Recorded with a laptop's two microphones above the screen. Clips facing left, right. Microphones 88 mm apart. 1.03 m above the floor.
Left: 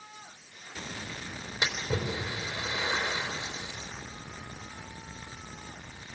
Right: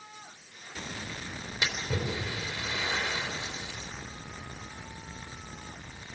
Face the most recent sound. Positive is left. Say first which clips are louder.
# left 1 dB
turn(degrees=15)  # may be behind; listen again after turning